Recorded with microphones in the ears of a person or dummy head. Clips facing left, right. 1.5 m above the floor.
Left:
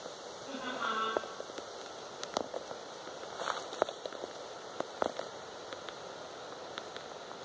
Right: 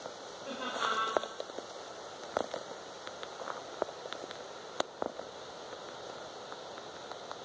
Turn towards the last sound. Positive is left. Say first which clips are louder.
# right 2 dB
turn(degrees=-65)  # may be behind; listen again after turning